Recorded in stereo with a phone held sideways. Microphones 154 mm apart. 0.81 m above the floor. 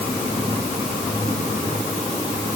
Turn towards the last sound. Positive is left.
No sound to turn to.